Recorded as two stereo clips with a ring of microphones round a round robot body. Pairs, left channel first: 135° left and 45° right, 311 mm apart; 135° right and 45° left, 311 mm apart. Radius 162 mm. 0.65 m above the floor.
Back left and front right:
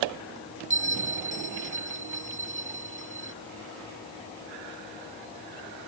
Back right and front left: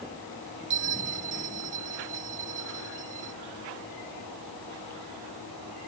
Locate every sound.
0.7 s a bell: 20° left